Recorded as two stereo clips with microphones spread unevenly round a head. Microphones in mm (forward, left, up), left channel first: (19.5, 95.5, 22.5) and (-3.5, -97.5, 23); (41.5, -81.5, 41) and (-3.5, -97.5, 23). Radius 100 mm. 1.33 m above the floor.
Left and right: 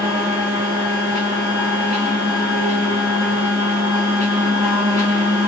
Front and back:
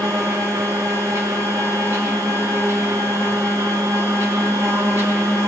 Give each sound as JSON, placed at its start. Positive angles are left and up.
{"t": 0.0, "sound": "a machine running", "azimuth_deg": -155, "distance_m": 1.7}